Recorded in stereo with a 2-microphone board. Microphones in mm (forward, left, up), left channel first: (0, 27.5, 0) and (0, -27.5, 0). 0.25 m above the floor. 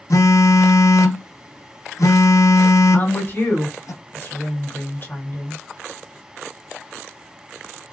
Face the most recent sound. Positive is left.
turn(degrees=40)  # may be behind; listen again after turning